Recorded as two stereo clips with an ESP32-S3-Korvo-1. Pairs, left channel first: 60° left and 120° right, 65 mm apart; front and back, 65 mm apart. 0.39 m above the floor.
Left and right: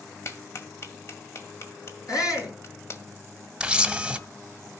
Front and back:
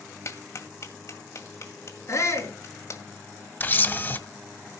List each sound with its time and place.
0.2 s a clap: 25° left, 1.7 m
2.1 s a shout: 40° left, 5 m
3.6 s a camera shutter: 45° right, 1.2 m